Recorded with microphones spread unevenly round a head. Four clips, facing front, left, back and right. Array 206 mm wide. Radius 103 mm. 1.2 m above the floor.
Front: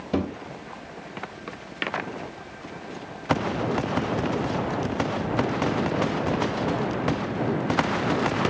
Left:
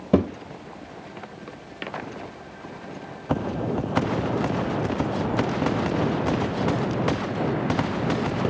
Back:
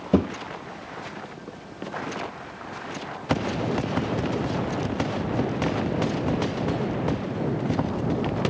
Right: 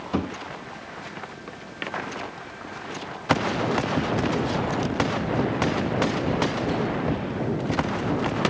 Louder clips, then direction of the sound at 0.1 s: Left 7 dB, back 5 dB; 115° left.